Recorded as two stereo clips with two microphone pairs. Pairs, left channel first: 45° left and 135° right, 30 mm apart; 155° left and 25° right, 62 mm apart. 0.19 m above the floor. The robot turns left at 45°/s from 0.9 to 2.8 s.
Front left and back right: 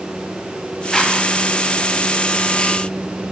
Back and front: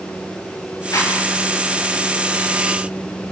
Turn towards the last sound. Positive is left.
turn(degrees=35)